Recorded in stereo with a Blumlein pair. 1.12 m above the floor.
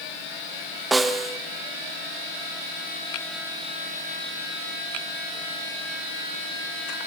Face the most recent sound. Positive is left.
turn(degrees=-10)